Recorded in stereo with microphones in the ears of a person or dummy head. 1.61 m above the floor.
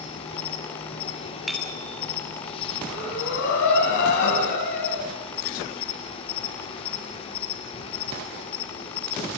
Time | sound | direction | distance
0.0 | an insect | 30° left (ahead or behind) | 4 m
1.5 | a bicycle bell | centre (ahead or behind) | 8 m
2.9 | breathing | 60° left (ahead or behind) | 6 m